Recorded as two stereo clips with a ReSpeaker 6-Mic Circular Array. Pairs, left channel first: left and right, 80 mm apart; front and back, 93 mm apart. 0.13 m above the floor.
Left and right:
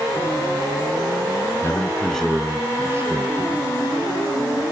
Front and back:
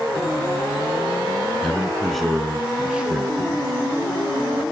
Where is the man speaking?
75° left, 1.1 m; by 3.7 s 110° right, 1.6 m.